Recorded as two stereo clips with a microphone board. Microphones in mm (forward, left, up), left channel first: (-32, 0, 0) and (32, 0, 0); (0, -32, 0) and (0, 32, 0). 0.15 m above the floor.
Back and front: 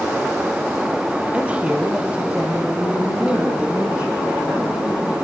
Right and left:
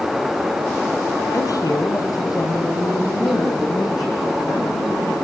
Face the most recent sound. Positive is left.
turn(degrees=-75)